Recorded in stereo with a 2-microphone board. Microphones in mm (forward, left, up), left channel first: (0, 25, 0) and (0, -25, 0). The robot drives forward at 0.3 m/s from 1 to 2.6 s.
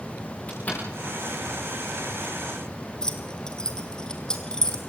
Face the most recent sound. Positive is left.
turn(degrees=15)  # may be behind; listen again after turning